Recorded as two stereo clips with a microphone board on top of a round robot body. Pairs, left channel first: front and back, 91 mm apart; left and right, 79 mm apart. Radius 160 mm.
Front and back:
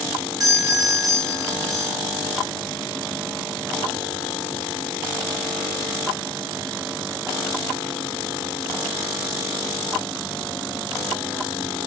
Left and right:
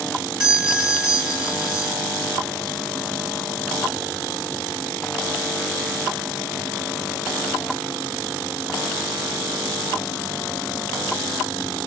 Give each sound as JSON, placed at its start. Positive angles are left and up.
{"t": 0.4, "sound": "a doorbell", "azimuth_deg": -160, "distance_m": 1.4}